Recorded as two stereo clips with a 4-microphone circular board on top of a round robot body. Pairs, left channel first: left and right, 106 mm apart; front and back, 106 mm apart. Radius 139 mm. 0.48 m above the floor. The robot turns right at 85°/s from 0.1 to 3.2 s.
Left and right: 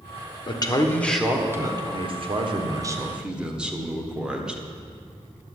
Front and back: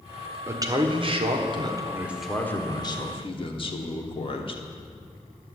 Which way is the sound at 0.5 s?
120° left.